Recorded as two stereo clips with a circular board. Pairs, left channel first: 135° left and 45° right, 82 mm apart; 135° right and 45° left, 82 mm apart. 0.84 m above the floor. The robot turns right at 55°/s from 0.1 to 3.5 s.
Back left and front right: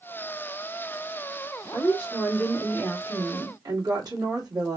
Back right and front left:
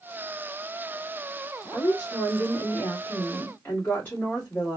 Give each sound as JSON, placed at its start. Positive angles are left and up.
{"t": 1.7, "sound": "a woman speaking", "azimuth_deg": -170, "distance_m": 1.7}